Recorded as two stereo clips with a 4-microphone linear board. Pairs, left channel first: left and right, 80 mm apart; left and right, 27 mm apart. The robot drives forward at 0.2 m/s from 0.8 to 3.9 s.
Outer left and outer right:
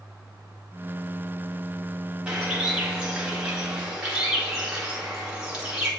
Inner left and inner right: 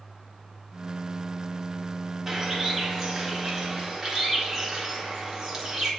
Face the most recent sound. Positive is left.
turn(degrees=-10)  # may be behind; listen again after turning